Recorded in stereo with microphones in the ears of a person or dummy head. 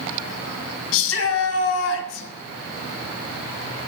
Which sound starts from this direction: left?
A shout, at 0.9 s.